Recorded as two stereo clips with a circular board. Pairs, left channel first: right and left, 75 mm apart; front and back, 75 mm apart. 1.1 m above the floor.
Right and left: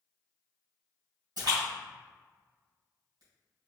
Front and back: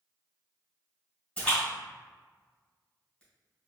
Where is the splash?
75° left, 1.9 m.